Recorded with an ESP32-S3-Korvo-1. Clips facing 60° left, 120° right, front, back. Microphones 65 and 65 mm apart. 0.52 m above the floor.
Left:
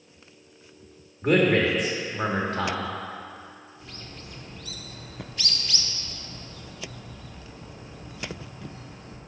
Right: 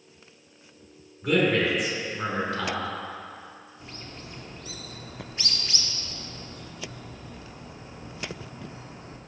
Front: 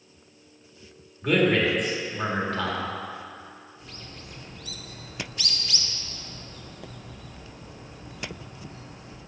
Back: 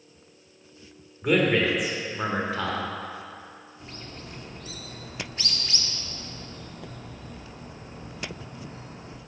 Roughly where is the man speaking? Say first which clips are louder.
Left 2 dB, even; left.